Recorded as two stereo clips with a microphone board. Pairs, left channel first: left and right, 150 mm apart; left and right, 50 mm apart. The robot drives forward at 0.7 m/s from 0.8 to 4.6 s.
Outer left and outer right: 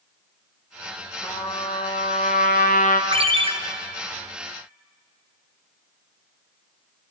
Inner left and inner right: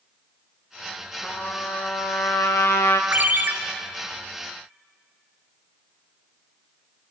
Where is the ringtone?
40° right (ahead or behind), 0.6 m; by 3.5 s 35° right (ahead or behind), 0.6 m.